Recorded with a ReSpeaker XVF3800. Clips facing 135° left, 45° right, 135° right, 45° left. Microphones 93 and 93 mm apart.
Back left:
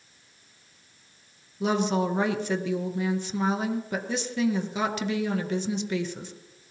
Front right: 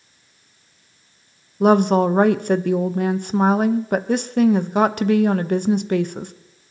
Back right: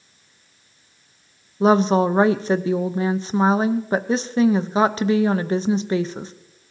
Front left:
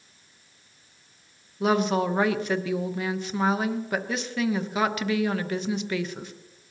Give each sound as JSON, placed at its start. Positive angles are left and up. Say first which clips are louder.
{"t": 1.6, "sound": "a woman speaking", "louder": "front right 10 dB, back right 7 dB", "azimuth_deg": -75, "distance_m": 0.7}